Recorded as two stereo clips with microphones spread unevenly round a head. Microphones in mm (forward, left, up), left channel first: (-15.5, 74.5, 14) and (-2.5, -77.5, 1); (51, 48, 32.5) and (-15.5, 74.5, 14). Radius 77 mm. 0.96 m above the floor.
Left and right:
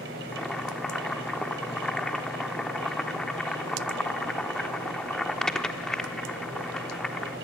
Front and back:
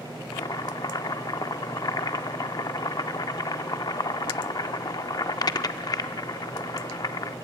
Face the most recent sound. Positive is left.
turn(degrees=10)